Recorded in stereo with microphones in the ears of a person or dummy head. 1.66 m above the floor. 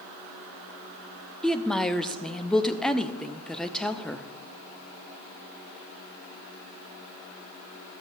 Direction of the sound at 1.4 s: 10° left (ahead or behind).